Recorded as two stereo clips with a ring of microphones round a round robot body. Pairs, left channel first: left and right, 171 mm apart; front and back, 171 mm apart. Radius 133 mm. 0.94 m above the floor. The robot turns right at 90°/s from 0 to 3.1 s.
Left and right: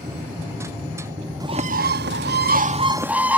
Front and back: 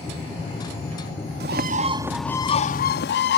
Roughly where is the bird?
Behind.